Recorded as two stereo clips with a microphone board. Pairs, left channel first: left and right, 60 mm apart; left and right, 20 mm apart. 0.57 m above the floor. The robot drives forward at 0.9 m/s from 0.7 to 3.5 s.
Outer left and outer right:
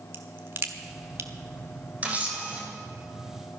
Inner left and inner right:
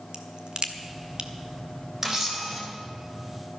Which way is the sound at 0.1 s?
45° right (ahead or behind).